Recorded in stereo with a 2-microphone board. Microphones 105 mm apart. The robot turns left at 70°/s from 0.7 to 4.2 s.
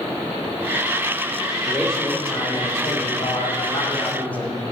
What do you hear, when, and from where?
1.7 s a man speaking: 170° right, 2 m; by 4.7 s 15° left, 2 m